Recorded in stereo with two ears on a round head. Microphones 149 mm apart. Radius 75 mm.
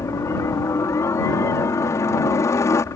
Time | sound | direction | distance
0.0 | a helicopter | 15° left (ahead or behind) | ?